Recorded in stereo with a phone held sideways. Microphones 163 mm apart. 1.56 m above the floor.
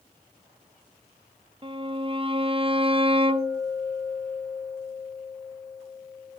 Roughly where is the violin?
Right.